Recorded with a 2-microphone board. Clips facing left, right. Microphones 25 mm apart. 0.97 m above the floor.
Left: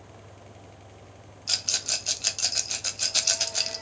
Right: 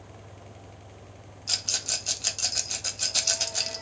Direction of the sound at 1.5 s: 20° left (ahead or behind).